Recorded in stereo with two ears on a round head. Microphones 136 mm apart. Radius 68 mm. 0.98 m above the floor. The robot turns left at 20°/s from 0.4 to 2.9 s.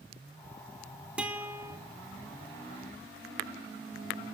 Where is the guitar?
5° right (ahead or behind), 2 m; by 1.8 s 20° right (ahead or behind), 2 m.